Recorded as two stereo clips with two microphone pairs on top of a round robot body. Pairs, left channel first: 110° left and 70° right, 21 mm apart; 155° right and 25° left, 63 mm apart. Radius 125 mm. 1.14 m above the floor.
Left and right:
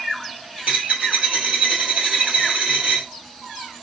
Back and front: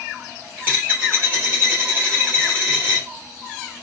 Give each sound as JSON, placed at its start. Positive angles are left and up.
{"t": 0.6, "sound": "a dropped coin", "azimuth_deg": -55, "distance_m": 1.8}